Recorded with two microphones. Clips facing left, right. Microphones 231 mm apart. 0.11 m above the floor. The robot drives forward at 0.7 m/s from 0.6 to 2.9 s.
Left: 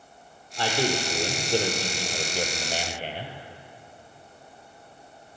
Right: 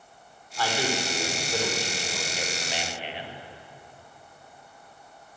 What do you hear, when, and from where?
0.6 s a man speaking: 25° left (ahead or behind), 3 m; by 3.3 s 45° left (ahead or behind), 1.9 m